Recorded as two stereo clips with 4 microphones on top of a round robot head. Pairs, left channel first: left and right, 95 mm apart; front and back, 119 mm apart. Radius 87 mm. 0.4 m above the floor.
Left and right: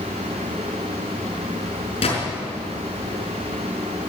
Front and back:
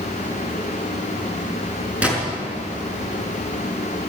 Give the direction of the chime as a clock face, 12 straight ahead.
No chime in this recording.